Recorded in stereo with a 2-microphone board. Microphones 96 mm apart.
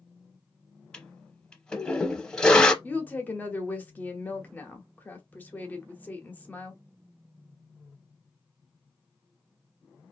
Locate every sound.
0.9 s a toilet flushing: 10° left (ahead or behind), 0.6 m
2.8 s a woman speaking: 20° left (ahead or behind), 0.8 m